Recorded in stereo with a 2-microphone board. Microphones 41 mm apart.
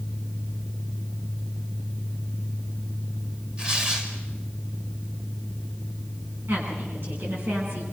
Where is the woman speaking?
60° right (ahead or behind), 9.5 m.